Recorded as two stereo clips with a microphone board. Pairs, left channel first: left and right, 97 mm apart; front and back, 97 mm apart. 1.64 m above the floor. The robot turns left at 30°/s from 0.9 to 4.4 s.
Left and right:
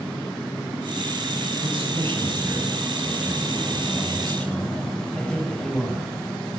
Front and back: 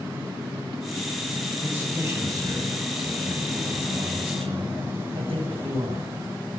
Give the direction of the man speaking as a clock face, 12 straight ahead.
3 o'clock.